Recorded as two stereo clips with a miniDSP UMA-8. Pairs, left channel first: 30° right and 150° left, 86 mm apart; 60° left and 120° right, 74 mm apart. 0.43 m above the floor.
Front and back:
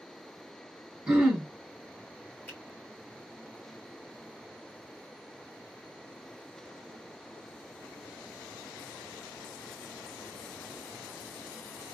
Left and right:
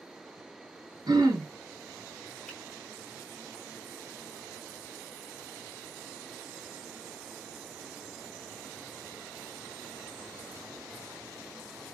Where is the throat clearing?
135° right, 1.2 m.